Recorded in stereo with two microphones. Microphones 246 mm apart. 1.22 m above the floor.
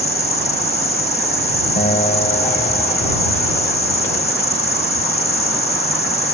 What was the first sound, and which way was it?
An insect, 25° left (ahead or behind).